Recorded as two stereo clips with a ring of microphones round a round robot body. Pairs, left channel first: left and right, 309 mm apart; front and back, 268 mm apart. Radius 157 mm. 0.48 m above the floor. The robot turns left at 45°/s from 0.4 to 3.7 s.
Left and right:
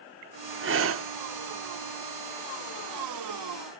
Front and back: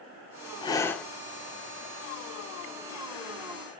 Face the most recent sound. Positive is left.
turn(degrees=155)